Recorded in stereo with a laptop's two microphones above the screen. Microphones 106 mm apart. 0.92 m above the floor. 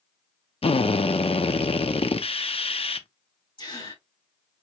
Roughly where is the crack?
No crack in this recording.